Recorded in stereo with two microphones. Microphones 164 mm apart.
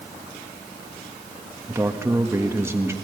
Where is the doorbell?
I don't hear a doorbell.